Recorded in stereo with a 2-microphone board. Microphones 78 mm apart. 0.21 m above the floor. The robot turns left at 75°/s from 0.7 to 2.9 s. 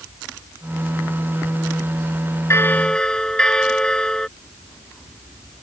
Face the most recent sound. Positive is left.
turn(degrees=10)